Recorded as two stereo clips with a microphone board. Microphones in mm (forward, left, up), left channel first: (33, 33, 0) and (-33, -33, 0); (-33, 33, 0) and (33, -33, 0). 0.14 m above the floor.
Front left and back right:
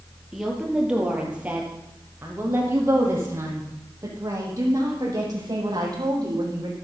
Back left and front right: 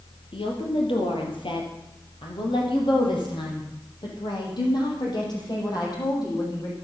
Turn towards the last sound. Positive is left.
turn(degrees=180)